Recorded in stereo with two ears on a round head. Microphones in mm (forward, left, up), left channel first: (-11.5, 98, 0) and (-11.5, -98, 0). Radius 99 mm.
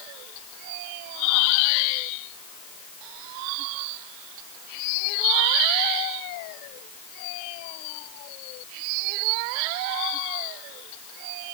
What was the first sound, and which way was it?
Only background noise.